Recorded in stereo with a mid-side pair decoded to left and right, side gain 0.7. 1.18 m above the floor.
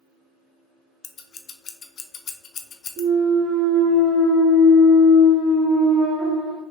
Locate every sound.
1.0 s scissors: 35° left, 0.6 m
3.0 s a clunk: 40° right, 1.7 m